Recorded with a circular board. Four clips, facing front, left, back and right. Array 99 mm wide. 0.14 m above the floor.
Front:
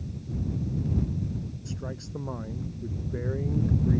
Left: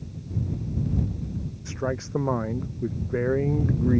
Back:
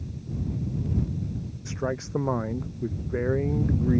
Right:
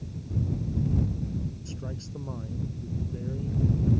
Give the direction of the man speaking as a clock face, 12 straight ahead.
8 o'clock.